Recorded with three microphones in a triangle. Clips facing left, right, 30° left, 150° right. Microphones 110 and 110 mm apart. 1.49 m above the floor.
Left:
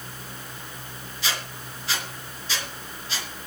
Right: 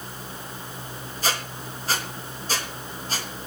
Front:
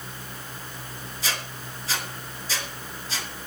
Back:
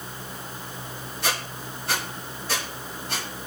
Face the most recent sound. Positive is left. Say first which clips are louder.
# right 4 dB, back 4 dB
turn(degrees=-130)